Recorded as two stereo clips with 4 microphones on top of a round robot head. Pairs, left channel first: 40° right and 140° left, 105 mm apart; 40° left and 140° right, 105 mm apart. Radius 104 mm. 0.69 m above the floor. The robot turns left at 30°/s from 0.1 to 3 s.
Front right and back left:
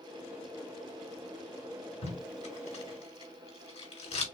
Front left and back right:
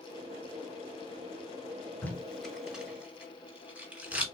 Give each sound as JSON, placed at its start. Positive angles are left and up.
{"t": 2.0, "sound": "tape being pulled", "azimuth_deg": -30, "distance_m": 3.5}